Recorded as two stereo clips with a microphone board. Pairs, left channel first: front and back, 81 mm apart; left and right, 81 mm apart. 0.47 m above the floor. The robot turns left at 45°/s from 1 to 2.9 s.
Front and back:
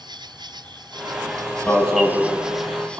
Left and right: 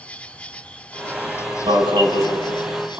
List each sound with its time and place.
0.0 s an insect: 165° left, 1.7 m; by 3.0 s 80° left, 1.7 m
1.7 s an alarm: 75° right, 6.5 m; by 3.0 s 130° right, 6.5 m